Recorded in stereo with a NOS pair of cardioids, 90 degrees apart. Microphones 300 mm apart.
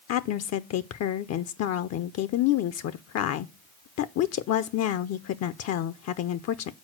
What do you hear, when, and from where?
0.1 s a woman speaking: 60° left, 0.5 m